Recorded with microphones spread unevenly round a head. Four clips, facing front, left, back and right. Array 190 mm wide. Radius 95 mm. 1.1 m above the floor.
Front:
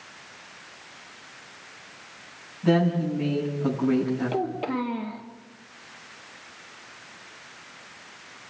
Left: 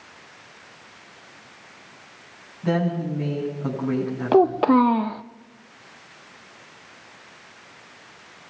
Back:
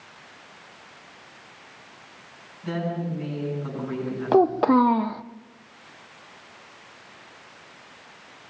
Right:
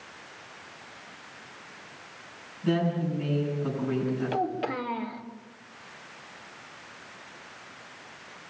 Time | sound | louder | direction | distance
2.6 | a woman speaking | left 3 dB, front 7 dB | 45° left | 9 m
4.3 | a child speaking | left 13 dB, back 10 dB | 125° left | 0.8 m